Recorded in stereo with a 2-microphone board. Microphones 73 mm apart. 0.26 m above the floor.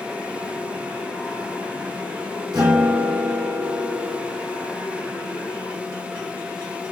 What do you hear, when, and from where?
2.5 s a guitar: 65° right (ahead or behind), 2.0 m